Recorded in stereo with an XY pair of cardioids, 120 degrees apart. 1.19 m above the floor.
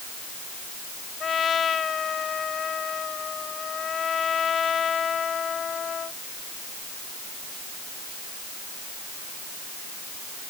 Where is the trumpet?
40° left.